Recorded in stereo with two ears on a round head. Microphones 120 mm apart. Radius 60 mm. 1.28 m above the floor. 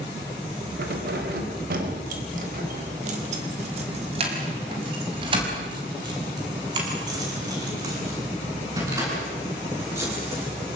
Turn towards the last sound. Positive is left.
turn(degrees=-20)  # may be behind; listen again after turning